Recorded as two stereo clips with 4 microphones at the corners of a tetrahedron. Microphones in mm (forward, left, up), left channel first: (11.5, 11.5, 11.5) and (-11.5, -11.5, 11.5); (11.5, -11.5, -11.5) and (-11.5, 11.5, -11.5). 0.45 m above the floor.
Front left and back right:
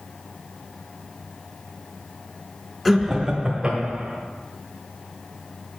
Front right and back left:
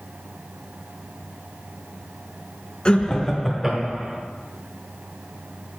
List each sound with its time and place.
2.9 s laughter: 40° right, 1.3 m; by 4.2 s straight behind, 1.7 m